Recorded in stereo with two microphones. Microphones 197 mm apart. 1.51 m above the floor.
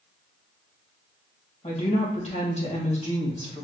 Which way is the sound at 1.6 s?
35° left (ahead or behind).